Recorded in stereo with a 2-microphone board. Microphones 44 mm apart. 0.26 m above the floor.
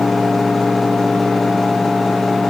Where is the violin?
I don't hear a violin.